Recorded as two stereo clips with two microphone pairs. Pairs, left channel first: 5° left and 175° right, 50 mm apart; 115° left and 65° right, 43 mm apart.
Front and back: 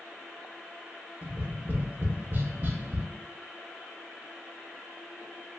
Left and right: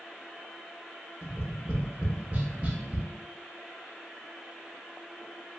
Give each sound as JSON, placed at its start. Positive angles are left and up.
{"t": 1.2, "sound": "tapping", "azimuth_deg": -130, "distance_m": 0.5}